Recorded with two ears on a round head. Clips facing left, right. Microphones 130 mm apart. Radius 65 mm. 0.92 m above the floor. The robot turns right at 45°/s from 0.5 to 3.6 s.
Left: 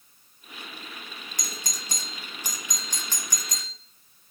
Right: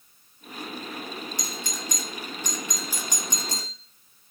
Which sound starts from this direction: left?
A doorbell, at 1.4 s.